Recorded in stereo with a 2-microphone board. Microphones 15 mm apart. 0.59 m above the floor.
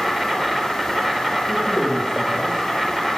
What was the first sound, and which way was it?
An insect, 25° right (ahead or behind).